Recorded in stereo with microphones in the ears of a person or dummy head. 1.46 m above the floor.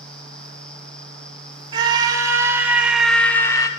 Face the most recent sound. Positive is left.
turn(degrees=20)  # may be behind; listen again after turning